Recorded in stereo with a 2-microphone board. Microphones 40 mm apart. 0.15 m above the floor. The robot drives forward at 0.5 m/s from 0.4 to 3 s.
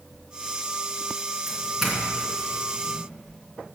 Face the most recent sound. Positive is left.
turn(degrees=-5)  # may be behind; listen again after turning